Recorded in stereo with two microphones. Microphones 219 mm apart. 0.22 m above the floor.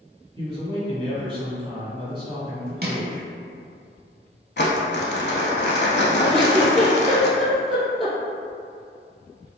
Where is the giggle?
25° right (ahead or behind), 1.0 m.